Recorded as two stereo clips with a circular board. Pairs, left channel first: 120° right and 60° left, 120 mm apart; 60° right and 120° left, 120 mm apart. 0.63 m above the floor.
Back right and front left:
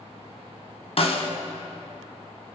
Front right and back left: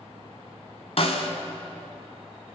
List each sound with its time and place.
1.0 s a snare drum: 90° right, 1.1 m